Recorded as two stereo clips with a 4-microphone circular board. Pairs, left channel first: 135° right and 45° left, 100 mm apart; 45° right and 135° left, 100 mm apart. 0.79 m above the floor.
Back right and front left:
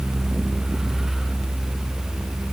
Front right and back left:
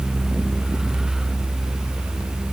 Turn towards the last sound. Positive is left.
No sound to turn to.